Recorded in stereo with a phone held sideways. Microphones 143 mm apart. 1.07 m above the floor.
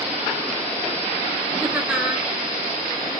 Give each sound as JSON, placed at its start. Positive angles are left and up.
{"t": 1.6, "sound": "laughter", "side_deg": -5, "distance_m": 1.5}